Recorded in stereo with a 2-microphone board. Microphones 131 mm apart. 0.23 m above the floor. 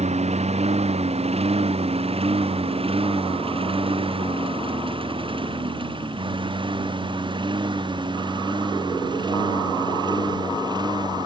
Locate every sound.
0.0 s a lawn mower: 50° right (ahead or behind); by 11.3 s 30° right (ahead or behind)